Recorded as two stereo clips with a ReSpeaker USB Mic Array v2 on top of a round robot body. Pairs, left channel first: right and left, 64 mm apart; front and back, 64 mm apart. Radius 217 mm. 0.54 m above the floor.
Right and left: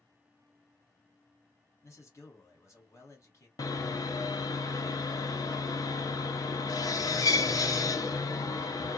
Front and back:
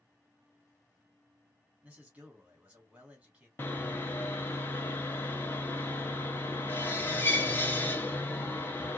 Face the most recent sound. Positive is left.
turn(degrees=-60)